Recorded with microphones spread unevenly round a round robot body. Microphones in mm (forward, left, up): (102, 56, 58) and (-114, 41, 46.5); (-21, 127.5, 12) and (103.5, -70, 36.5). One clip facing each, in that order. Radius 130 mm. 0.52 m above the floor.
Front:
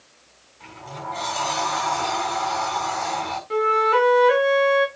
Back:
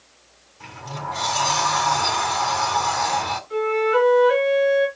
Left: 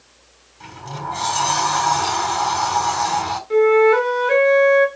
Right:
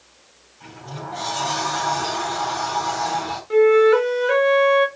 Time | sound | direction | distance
0.6 | a sliding door | 155° left | 3.5 m
3.5 | a flute | 25° left | 3.5 m